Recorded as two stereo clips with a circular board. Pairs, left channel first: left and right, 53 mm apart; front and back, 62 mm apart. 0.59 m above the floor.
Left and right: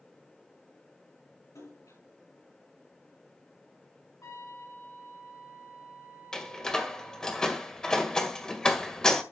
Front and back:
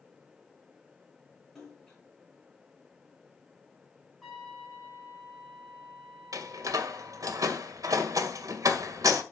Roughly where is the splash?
Left.